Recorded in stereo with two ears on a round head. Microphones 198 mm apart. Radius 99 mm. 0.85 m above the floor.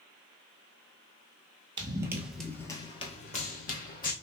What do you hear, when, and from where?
1.8 s running footsteps: 20° right (ahead or behind), 1.0 m; by 4.1 s 40° left (ahead or behind), 1.6 m